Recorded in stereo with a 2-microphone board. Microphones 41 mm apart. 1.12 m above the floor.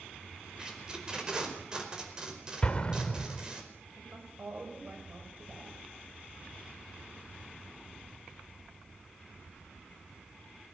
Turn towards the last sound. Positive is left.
turn(degrees=-55)  # may be behind; listen again after turning